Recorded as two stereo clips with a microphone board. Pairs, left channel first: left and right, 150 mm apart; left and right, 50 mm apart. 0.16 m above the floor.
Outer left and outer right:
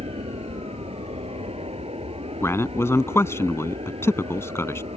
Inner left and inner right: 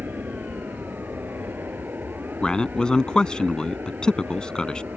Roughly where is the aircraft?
Right.